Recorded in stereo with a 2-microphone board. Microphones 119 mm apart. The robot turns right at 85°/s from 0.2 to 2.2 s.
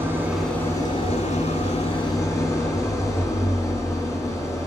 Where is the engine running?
20° right, 1.5 m; by 4.7 s 150° left, 1.5 m.